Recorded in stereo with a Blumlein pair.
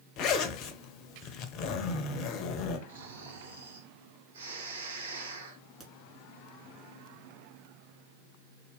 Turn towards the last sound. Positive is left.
turn(degrees=0)